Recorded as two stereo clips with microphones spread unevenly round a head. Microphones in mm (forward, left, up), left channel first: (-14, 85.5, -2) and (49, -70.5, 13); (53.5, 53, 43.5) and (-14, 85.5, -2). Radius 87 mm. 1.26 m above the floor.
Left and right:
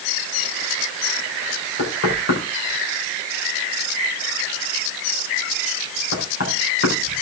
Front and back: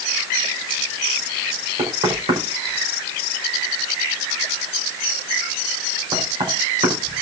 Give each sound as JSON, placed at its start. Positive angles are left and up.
{"t": 1.8, "sound": "knocking", "azimuth_deg": 135, "distance_m": 5.0}